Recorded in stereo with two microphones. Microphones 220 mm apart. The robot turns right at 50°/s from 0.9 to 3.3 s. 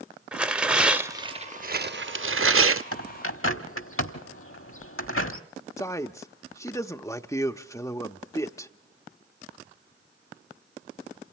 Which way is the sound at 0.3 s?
175° right.